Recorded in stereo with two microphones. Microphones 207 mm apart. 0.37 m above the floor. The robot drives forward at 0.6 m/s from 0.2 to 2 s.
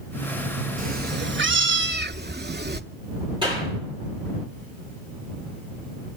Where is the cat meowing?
40° right (ahead or behind), 0.7 m; by 2.8 s 50° right (ahead or behind), 0.6 m.